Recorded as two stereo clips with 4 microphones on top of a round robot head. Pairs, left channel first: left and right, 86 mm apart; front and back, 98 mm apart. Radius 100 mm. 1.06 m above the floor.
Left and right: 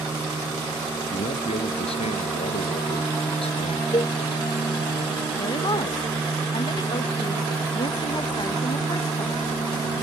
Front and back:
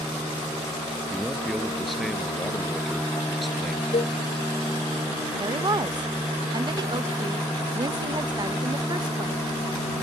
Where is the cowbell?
40° left.